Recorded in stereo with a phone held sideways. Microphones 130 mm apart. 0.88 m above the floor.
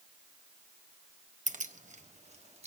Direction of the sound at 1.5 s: 70° right (ahead or behind).